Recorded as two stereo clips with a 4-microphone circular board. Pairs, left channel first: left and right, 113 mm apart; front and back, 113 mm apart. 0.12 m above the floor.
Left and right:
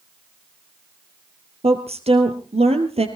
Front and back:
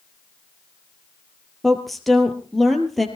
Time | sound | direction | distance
1.6 | a woman speaking | 90° right | 3 m